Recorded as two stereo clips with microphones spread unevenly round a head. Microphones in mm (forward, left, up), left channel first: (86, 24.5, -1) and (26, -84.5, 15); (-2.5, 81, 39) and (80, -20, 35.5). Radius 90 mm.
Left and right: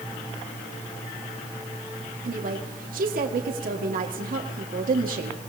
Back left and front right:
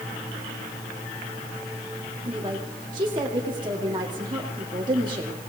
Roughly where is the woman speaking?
Behind right.